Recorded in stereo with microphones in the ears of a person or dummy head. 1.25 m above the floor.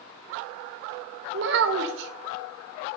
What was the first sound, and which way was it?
A child speaking, 60° right (ahead or behind).